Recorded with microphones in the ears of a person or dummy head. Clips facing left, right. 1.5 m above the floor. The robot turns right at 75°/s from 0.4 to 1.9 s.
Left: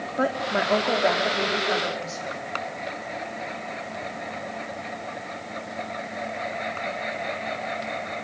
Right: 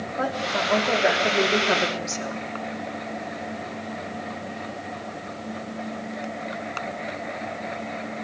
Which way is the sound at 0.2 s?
145° left.